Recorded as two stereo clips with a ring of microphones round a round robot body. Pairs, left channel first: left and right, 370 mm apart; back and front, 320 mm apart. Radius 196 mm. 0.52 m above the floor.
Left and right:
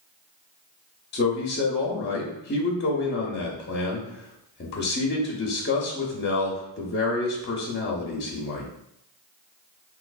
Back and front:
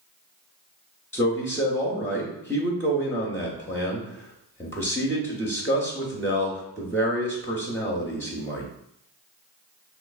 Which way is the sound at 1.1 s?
105° left.